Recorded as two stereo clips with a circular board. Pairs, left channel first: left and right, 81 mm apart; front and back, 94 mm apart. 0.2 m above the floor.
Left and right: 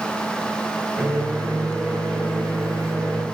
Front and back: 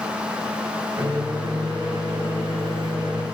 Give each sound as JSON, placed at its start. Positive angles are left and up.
{"t": 1.0, "sound": "a microwave", "azimuth_deg": 170, "distance_m": 2.0}